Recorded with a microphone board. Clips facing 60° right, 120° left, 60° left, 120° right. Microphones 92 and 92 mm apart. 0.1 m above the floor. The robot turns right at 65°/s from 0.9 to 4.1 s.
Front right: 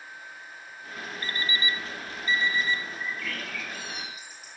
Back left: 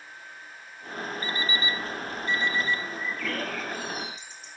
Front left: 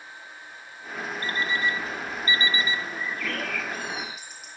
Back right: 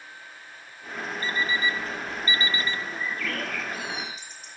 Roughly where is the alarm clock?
Ahead left.